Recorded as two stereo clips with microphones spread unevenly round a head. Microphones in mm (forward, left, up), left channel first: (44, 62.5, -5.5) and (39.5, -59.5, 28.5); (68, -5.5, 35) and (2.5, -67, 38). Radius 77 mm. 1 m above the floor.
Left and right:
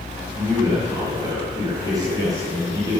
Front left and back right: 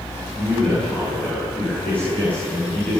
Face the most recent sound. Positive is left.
turn(degrees=-30)